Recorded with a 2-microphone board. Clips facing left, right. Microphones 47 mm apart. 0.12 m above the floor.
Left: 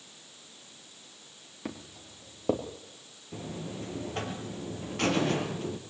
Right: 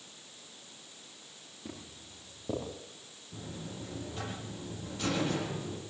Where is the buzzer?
65° left (ahead or behind), 3.5 m.